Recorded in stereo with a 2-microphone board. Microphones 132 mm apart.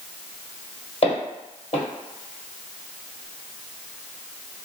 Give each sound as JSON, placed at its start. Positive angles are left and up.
{"t": 1.0, "sound": "footsteps", "side_deg": 45, "distance_m": 1.9}